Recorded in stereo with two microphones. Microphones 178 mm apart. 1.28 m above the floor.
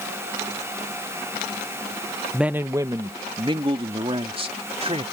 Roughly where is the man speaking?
Centre.